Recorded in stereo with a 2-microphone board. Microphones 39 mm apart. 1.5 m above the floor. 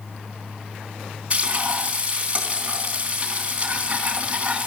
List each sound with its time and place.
1.3 s frying: 30° right (ahead or behind), 3.5 m